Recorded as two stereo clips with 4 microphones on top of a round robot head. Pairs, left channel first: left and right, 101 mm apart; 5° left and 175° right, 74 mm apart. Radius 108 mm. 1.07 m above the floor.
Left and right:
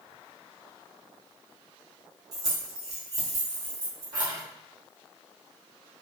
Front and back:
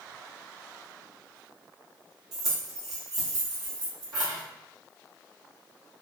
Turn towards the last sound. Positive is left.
turn(degrees=-145)